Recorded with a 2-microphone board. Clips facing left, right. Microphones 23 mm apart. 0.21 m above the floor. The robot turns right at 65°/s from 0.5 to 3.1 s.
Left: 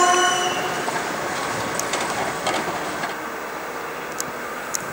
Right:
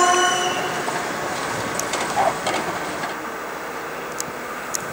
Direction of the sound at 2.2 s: 80° right.